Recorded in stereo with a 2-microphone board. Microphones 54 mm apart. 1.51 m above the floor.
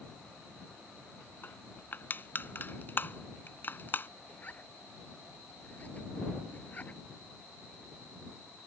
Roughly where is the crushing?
Left.